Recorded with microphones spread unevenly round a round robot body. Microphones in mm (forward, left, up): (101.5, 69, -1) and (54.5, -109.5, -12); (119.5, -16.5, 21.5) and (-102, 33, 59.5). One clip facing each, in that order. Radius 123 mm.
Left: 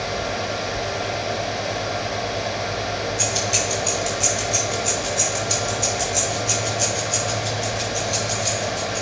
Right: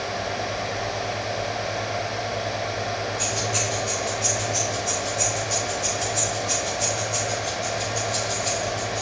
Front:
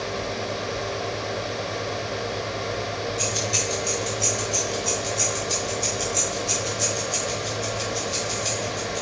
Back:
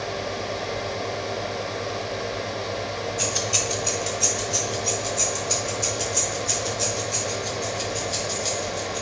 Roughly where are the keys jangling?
Left.